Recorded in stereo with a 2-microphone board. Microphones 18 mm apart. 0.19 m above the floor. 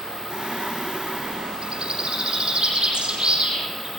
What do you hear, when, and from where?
0.3 s singing: 40° right (ahead or behind), 7 m
1.6 s a bird: 55° right (ahead or behind), 6.5 m